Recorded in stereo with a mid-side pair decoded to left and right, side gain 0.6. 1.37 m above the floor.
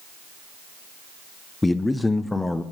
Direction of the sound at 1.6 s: 15° left.